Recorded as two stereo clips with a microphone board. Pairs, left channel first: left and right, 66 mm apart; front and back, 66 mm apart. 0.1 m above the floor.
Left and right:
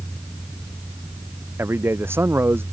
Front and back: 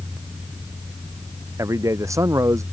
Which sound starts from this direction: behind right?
A man speaking, at 1.6 s.